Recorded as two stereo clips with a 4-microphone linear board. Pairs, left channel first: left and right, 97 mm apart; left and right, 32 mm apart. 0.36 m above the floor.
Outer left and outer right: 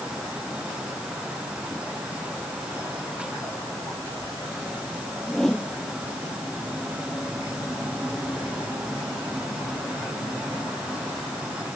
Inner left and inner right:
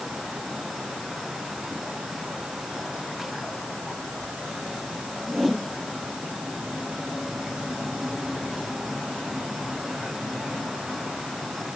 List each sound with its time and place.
5.3 s a whoosh: 5° left (ahead or behind)